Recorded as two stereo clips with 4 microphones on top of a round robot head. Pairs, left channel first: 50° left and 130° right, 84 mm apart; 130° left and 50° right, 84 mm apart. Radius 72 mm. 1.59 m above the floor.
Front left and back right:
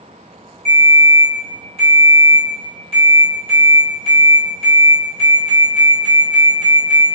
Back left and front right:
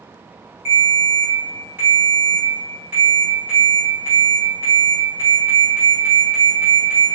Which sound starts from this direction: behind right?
A ringtone, at 0.7 s.